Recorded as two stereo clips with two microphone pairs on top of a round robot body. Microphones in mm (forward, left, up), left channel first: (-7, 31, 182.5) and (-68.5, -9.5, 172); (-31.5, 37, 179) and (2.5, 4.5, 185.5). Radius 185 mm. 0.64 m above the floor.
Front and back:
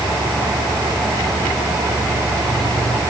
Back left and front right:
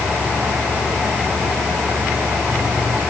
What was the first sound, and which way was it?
Only background noise.